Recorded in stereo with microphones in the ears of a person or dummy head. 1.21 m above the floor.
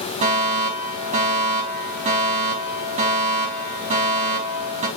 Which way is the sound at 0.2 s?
35° right (ahead or behind).